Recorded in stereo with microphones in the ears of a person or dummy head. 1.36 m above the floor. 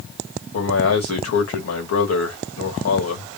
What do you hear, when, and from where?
0.5 s a man speaking: 75° left (ahead or behind), 1.9 m